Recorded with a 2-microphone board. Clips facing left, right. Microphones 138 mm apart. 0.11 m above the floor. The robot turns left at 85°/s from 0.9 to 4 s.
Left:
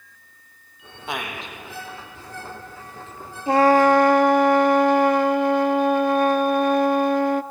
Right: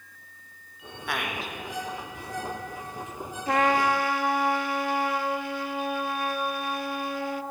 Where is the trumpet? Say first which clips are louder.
Left 8 dB; 150° left, 0.6 m; by 7.4 s 105° left, 0.6 m.